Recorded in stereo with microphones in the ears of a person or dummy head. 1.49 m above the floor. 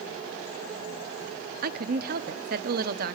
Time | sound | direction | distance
1.6 | a woman speaking | 55° right (ahead or behind) | 0.6 m